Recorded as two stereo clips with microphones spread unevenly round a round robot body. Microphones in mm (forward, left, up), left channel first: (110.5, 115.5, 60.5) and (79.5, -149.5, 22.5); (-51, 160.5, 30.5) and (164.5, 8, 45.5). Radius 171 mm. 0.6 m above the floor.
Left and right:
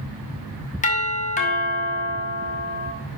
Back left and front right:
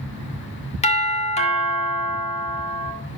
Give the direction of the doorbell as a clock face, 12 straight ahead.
8 o'clock.